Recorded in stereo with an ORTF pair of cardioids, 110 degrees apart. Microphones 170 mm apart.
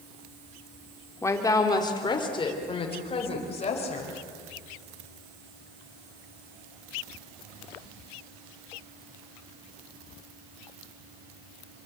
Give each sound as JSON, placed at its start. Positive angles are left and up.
{"t": 1.2, "sound": "a woman speaking", "azimuth_deg": 15, "distance_m": 3.0}